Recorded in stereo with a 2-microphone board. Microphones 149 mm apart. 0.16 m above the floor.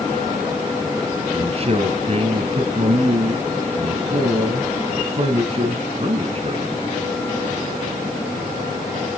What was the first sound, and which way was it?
A man speaking, 40° right (ahead or behind).